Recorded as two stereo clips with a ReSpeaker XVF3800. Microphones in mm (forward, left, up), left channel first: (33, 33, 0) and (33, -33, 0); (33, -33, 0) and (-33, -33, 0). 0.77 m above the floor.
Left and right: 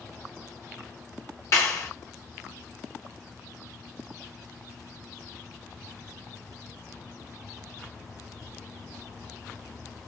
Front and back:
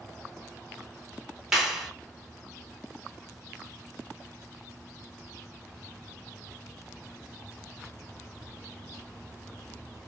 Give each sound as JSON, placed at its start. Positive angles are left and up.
{"t": 1.5, "sound": "a clap", "azimuth_deg": 100, "distance_m": 0.9}